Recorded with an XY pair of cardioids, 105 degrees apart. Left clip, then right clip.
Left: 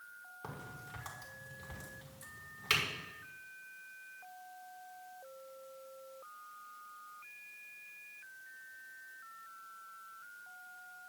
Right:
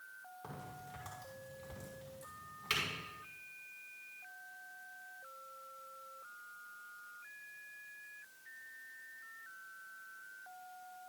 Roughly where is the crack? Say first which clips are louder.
Left 3 dB; ahead left.